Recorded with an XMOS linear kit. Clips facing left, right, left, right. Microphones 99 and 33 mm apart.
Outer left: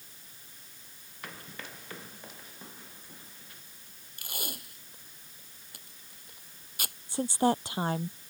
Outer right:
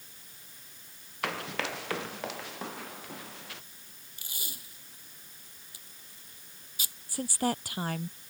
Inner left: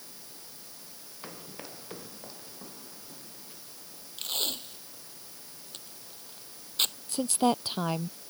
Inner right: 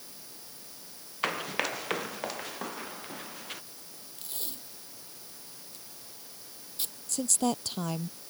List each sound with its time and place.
1.2 s running footsteps: 85° right
4.2 s tape being pulled: 60° left (ahead or behind)
7.1 s a woman speaking: 25° left (ahead or behind)